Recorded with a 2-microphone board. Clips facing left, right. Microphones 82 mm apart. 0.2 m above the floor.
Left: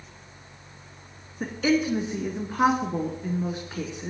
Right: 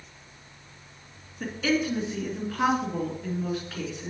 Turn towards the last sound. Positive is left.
turn(degrees=20)  # may be behind; listen again after turning